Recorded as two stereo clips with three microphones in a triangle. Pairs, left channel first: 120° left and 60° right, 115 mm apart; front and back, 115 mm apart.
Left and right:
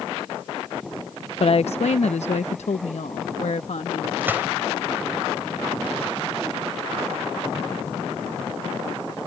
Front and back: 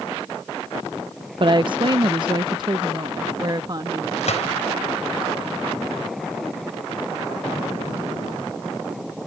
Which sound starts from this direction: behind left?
A woman speaking, at 1.4 s.